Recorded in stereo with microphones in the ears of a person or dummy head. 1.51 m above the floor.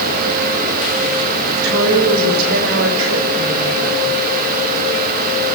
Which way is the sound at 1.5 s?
85° right.